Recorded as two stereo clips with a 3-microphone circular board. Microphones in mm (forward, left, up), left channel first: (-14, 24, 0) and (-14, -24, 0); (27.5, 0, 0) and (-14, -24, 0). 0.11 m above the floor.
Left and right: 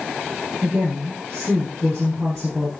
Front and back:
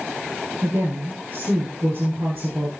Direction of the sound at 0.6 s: 165° right.